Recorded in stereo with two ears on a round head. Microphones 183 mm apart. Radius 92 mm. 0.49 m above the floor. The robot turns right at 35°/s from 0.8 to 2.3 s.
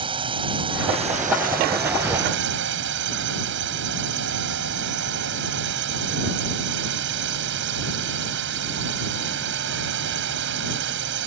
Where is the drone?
150° right; by 11.3 s 100° right.